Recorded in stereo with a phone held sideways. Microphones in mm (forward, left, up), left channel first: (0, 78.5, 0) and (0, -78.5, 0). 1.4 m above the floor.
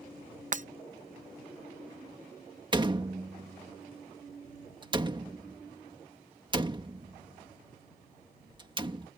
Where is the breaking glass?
55° right (ahead or behind).